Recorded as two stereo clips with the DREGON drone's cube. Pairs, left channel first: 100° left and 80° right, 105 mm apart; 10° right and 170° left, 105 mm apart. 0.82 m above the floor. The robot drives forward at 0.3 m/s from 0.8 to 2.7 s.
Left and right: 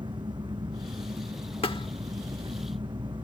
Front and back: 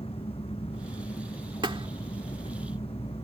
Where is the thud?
130° left; by 1.9 s 135° left.